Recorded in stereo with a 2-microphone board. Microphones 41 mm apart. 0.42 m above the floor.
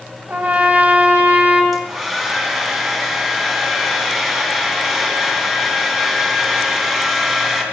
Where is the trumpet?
35° right (ahead or behind), 3.5 m.